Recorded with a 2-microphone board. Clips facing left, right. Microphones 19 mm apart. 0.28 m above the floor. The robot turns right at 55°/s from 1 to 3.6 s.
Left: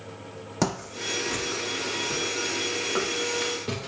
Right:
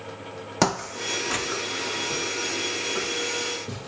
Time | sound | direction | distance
0.6 | footsteps | 25° right (ahead or behind) | 0.6 m